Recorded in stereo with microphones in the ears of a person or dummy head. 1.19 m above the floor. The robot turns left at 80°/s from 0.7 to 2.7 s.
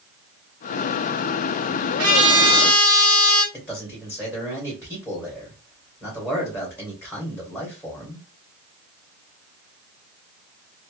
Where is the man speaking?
10° left (ahead or behind), 1.7 m.